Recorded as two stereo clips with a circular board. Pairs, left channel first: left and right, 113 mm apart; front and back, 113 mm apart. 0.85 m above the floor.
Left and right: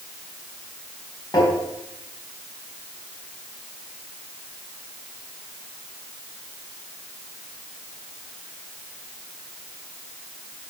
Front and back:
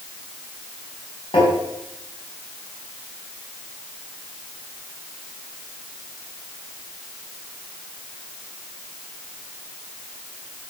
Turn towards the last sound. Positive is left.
turn(degrees=35)